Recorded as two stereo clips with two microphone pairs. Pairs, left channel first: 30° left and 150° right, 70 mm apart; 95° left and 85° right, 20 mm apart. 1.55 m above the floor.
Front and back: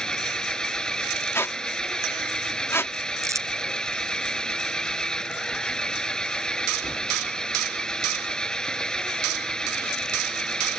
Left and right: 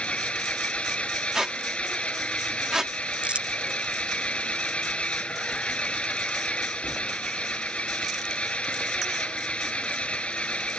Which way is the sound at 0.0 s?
110° left.